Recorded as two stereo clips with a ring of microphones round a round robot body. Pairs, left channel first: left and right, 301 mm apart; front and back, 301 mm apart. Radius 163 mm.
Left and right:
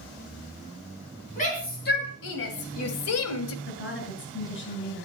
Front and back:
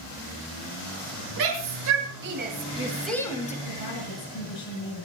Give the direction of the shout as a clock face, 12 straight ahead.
7 o'clock.